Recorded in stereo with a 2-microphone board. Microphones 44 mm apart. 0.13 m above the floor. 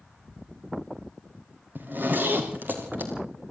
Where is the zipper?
45° right (ahead or behind), 5 m.